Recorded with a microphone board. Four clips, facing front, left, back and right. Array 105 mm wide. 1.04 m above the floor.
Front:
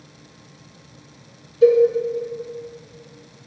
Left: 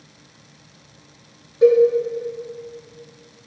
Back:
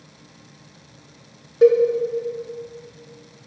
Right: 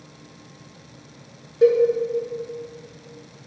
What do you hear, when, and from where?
1.6 s a cowbell: 165° right, 1.5 m